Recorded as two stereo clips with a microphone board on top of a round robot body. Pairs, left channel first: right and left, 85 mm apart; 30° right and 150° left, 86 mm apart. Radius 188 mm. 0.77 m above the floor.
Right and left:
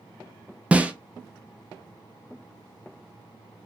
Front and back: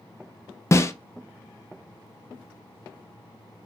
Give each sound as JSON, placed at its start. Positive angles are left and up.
{"t": 0.7, "sound": "a snare drum", "azimuth_deg": 20, "distance_m": 0.5}